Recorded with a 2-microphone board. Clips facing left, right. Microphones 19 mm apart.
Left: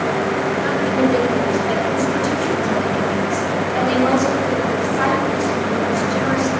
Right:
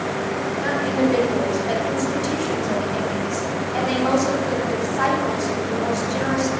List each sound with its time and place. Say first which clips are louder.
0.6 s a woman speaking: left 1 dB; 10° right (ahead or behind), 2.5 m